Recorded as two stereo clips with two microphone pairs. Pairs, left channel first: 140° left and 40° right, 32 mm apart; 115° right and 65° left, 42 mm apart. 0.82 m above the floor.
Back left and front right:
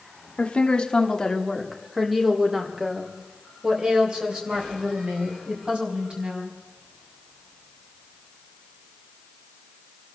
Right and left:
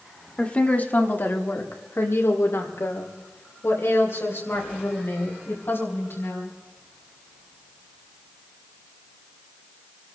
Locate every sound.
0.4 s a woman speaking: 175° right, 1.7 m; by 6.6 s 90° right, 6 m